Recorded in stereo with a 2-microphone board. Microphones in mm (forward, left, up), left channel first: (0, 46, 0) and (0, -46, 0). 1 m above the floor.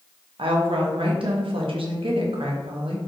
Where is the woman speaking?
75° right (ahead or behind), 1.0 m.